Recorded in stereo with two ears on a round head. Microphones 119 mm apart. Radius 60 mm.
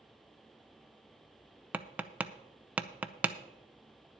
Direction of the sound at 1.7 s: 10° right (ahead or behind).